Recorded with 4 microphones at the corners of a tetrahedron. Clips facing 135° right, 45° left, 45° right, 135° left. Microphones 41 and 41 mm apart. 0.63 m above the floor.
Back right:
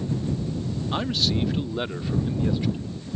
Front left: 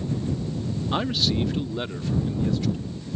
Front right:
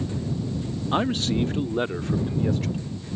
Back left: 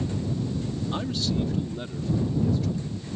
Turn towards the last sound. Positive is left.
turn(degrees=-65)